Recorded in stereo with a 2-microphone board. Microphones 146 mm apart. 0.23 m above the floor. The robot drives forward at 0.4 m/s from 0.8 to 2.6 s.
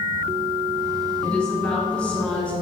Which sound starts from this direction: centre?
A woman speaking, at 1.2 s.